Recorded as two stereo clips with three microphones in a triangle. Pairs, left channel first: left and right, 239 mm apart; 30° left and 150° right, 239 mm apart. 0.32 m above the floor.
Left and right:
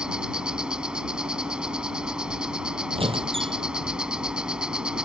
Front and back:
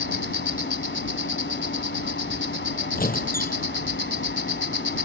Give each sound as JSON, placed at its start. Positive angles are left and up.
{"t": 0.0, "sound": "an insect", "azimuth_deg": -5}
{"t": 3.0, "sound": "a squeak", "azimuth_deg": -25}